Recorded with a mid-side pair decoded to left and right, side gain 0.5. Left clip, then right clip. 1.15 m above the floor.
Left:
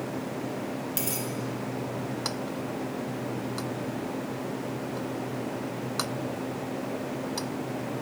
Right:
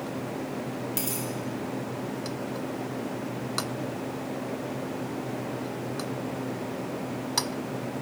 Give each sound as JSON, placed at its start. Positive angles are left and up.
{"t": 1.0, "sound": "a dropped coin", "azimuth_deg": 5, "distance_m": 1.4}